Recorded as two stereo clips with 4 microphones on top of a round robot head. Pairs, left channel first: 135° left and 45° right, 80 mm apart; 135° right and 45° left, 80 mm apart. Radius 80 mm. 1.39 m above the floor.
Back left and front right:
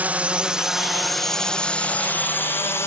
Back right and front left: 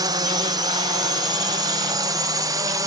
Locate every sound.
0.0 s a drone: 25° left; by 2.9 s 85° left